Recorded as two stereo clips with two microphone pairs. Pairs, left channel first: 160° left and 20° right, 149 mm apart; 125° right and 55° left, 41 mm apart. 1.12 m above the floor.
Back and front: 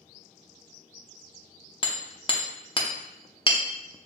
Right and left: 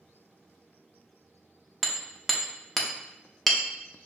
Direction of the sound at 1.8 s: 155° left.